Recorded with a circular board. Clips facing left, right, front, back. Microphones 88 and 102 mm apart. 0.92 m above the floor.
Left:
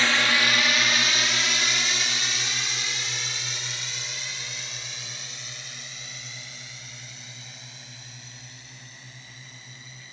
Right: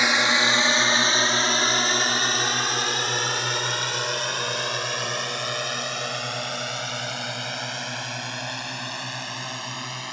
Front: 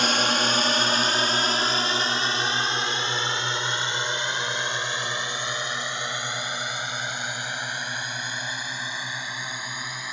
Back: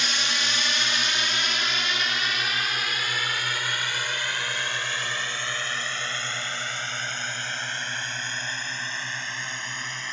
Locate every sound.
0.0 s a drone: 20° right; by 10.2 s 80° right